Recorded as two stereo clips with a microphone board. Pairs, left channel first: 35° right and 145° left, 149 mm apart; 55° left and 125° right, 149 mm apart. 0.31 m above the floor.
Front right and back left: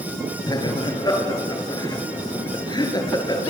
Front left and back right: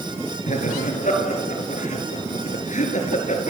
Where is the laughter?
25° left, 5 m.